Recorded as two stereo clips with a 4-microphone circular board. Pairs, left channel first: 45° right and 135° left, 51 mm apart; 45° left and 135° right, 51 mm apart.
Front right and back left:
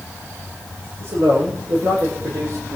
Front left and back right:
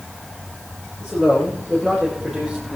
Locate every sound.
1.0 s a man speaking: 125° left, 6.5 m; by 2.8 s 130° left, 5.5 m